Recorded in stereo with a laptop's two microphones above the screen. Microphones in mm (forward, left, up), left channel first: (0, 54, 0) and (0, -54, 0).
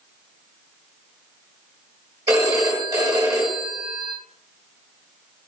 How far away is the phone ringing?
About 1.0 m.